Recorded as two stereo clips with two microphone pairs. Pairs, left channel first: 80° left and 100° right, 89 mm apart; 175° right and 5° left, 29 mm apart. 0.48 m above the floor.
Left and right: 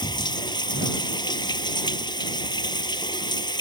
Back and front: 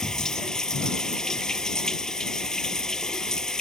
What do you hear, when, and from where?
0.0 s running water: 115° left